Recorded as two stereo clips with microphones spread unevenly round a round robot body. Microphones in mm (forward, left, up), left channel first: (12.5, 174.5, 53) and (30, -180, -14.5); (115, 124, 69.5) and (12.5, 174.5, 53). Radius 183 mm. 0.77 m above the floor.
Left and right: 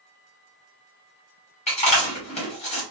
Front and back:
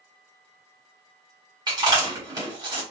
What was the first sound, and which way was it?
Chewing, 170° left.